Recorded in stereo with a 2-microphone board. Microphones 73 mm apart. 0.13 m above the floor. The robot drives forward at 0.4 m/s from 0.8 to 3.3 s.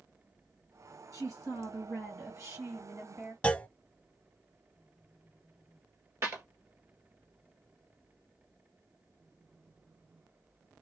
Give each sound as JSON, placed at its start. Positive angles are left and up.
{"t": 1.1, "sound": "a woman speaking", "side_deg": -50, "distance_m": 2.5}
{"t": 3.4, "sound": "a clunk", "side_deg": 20, "distance_m": 0.6}
{"t": 6.2, "sound": "a clap", "side_deg": -40, "distance_m": 1.9}